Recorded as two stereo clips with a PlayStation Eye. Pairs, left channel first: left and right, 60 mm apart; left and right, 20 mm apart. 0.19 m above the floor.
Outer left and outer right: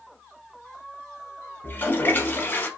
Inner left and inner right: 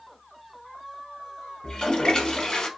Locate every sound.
1.6 s a toilet flushing: 35° left (ahead or behind), 0.6 m